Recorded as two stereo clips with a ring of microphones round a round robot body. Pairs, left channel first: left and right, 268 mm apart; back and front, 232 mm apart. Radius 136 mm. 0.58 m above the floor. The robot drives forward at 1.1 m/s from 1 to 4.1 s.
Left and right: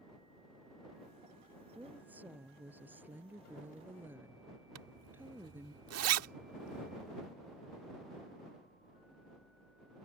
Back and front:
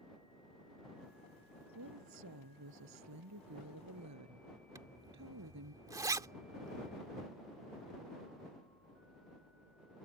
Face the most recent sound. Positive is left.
turn(degrees=-75)